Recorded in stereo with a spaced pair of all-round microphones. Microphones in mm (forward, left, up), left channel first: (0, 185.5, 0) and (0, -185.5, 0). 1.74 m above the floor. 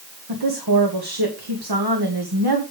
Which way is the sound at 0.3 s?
85° right.